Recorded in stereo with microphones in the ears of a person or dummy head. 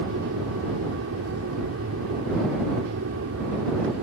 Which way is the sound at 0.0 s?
65° right (ahead or behind).